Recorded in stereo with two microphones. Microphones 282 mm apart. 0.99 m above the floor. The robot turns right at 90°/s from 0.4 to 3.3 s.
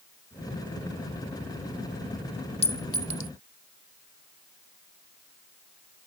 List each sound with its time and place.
2.6 s a clink: 20° left (ahead or behind); by 3.3 s 80° left